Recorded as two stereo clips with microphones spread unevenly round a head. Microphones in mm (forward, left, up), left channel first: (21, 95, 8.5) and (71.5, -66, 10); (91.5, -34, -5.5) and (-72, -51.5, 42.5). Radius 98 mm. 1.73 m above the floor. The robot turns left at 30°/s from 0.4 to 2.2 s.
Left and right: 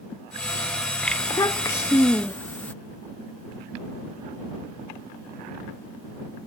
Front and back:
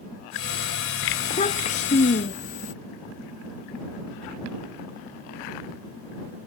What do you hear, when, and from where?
1.2 s a child speaking: 65° left; by 2.7 s 35° left